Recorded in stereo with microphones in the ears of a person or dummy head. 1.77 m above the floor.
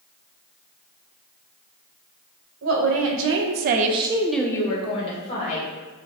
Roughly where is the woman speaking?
Right.